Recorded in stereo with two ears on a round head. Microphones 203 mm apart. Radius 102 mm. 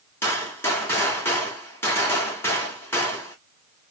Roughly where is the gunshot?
Centre.